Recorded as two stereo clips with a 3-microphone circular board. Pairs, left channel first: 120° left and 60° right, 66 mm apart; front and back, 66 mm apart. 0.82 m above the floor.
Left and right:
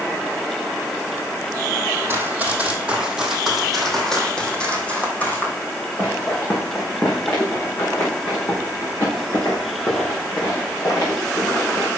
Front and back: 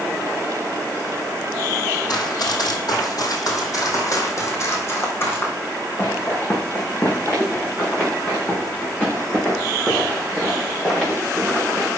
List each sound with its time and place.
2.1 s running footsteps: straight ahead, 2.0 m; by 11.9 s 80° left, 6.5 m